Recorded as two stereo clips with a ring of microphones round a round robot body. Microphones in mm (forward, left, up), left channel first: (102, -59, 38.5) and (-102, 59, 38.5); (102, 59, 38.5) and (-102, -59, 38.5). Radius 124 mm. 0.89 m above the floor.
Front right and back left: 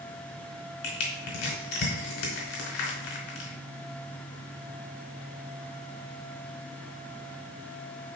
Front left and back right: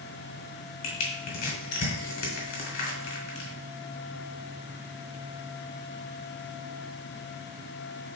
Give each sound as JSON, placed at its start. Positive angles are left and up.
{"t": 0.8, "sound": "crushing", "azimuth_deg": -5, "distance_m": 3.5}